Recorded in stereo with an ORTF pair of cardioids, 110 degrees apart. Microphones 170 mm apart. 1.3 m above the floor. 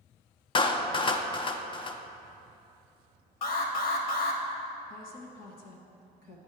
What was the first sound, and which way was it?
A clap, 30° left.